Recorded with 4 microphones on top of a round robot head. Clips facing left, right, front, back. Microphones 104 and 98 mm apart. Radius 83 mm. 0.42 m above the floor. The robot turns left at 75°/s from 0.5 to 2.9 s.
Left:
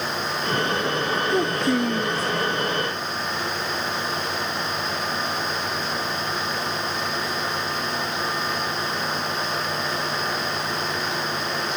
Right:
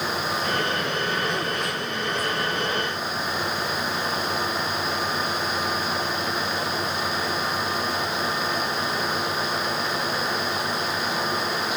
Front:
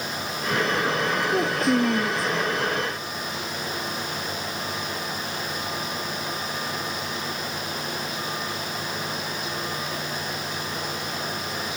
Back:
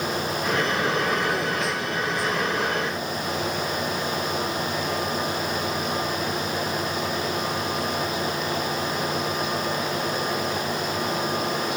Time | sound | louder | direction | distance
1.3 | a child speaking | left 6 dB, front 4 dB | 75° left | ?